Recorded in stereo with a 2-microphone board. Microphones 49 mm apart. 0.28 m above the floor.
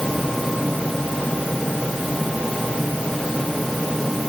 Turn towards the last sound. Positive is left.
No sound to turn to.